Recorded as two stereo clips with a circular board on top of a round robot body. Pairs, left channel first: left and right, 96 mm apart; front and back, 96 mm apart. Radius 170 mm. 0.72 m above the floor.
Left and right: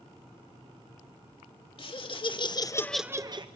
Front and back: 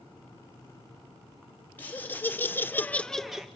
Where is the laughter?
70° left, 2 m; by 3.5 s 95° right, 1.0 m.